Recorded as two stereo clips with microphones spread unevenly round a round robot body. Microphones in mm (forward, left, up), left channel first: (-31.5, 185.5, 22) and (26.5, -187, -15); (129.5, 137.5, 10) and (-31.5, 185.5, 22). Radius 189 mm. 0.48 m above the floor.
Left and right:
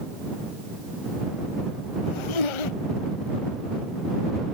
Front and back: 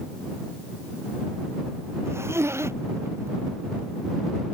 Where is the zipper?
90° left.